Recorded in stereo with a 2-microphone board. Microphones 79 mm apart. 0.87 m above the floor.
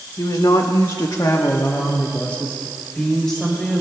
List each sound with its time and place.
0.2 s a woman speaking: 60° left (ahead or behind), 1.3 m; by 3.8 s 5° left (ahead or behind), 3.5 m